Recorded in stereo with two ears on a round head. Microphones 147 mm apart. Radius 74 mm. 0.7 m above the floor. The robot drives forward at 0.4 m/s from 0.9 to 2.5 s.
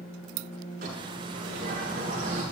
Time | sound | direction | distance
0.8 | a bird | 55° right (ahead or behind) | 7.5 m